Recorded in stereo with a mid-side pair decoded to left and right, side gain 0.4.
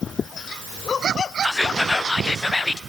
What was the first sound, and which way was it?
Whispering, 25° left.